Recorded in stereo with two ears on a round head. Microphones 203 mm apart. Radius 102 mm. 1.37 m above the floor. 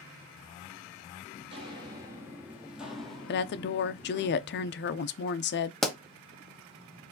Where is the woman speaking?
50° left (ahead or behind), 0.6 m.